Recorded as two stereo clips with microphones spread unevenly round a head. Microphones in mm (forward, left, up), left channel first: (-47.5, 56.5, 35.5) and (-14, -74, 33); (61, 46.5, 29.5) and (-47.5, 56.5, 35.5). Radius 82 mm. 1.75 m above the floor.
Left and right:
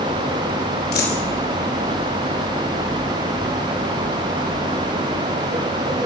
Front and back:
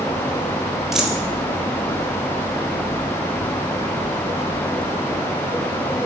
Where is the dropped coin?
90° left, 4 m.